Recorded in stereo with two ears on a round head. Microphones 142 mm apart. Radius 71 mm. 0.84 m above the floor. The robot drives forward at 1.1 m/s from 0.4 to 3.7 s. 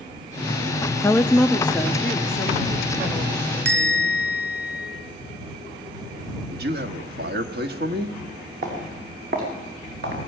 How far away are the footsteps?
About 6 m.